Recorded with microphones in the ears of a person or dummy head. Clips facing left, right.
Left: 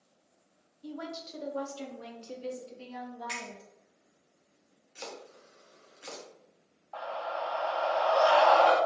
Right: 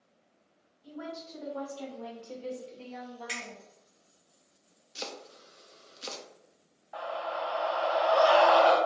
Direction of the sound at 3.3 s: 30° right (ahead or behind).